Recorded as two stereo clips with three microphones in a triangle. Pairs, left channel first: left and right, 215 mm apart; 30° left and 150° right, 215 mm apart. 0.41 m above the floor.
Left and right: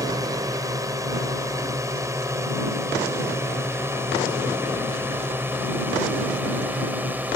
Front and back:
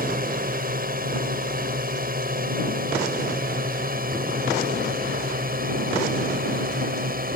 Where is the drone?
155° right; by 7.4 s 170° right.